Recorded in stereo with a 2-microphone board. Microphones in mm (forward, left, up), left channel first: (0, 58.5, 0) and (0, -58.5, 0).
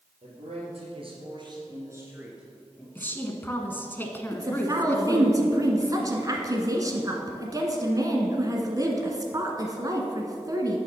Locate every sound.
0.2 s a man speaking: 65° right (ahead or behind), 3.5 m; by 2.9 s 10° left (ahead or behind), 2.5 m
3.0 s a woman speaking: 15° left (ahead or behind), 1.1 m
4.3 s a woman speaking: 30° right (ahead or behind), 1.4 m